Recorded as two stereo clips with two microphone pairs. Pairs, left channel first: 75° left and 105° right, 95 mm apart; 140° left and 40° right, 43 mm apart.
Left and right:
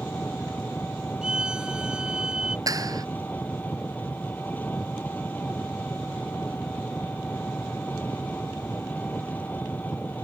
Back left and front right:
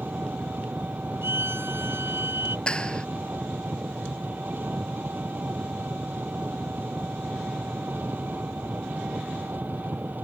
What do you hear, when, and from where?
0.0 s an engine running: 5° left
1.2 s a violin: 25° right
2.7 s a clap: 155° right